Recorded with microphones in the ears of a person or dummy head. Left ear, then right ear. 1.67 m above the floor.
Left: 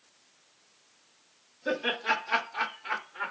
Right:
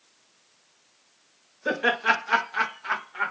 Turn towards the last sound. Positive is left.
turn(degrees=-65)  # may be behind; listen again after turning